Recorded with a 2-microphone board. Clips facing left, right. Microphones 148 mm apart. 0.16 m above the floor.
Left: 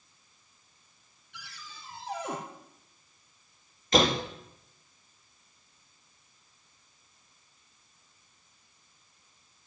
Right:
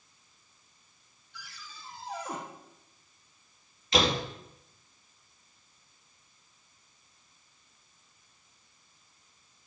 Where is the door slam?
45° left (ahead or behind), 3 m.